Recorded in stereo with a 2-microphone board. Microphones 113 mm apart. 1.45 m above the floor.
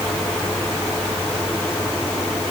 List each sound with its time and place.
Only background noise.